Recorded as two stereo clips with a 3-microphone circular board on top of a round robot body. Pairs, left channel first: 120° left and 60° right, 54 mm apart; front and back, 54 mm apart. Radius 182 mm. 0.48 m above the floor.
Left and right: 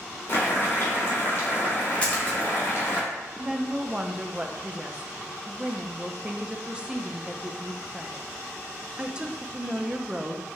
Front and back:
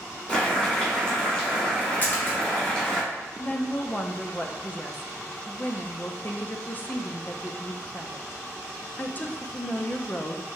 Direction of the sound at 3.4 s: 5° right.